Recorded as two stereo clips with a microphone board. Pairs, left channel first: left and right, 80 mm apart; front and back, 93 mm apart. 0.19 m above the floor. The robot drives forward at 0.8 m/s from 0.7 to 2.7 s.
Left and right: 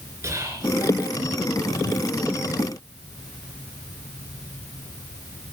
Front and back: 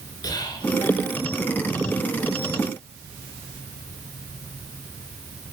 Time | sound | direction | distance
0.2 | whispering | 40° right | 3.5 m